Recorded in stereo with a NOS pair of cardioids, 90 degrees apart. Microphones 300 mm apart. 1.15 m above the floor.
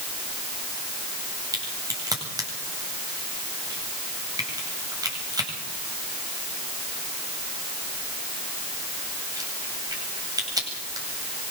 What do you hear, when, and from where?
1.5 s a crack: 10° right, 8.5 m